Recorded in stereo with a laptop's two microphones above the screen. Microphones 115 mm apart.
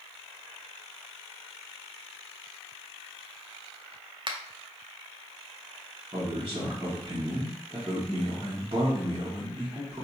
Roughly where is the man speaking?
Right.